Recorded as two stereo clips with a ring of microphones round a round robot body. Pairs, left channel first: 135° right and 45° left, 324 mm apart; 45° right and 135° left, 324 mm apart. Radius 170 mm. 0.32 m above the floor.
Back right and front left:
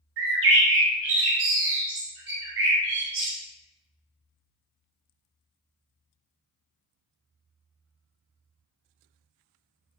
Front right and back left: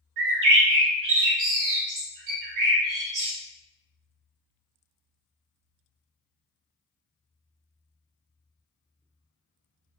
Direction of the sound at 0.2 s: 100° left.